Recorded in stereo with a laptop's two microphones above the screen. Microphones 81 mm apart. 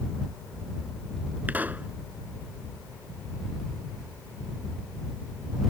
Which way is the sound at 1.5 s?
20° right (ahead or behind).